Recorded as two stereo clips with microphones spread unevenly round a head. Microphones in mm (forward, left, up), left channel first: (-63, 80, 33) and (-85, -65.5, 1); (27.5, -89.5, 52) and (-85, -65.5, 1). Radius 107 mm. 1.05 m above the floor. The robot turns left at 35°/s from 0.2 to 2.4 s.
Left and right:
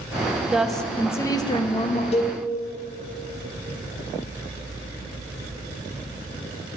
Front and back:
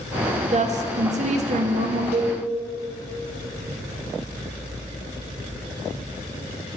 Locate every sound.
0.5 s a woman speaking: straight behind, 0.9 m; by 2.0 s 125° left, 0.9 m
2.1 s a cowbell: 130° left, 0.8 m; by 2.4 s 125° left, 0.8 m